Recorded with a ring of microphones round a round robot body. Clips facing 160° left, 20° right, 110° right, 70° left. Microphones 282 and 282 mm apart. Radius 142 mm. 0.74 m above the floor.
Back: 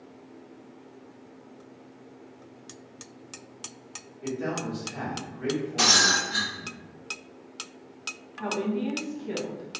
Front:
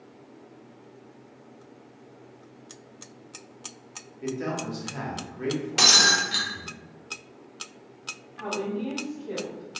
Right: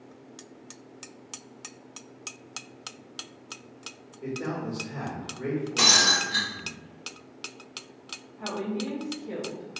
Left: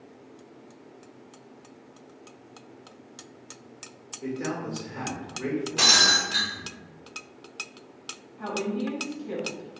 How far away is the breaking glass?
About 0.8 m.